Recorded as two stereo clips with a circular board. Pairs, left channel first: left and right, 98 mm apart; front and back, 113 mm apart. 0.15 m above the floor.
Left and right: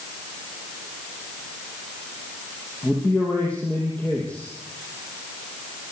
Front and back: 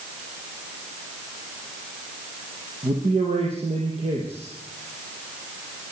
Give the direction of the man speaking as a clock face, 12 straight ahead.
7 o'clock.